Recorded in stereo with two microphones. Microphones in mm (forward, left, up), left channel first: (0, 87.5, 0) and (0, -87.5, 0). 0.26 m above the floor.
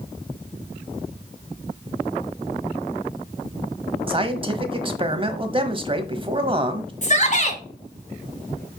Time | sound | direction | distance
4.1 | a man speaking | 30° right (ahead or behind) | 1.2 m
7.0 | a shout | 45° left (ahead or behind) | 2 m